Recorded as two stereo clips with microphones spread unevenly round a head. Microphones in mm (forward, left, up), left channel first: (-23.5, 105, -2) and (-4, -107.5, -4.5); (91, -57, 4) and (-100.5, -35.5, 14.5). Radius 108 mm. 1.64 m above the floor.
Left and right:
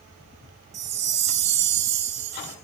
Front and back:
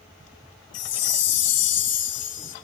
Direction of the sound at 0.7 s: 25° right.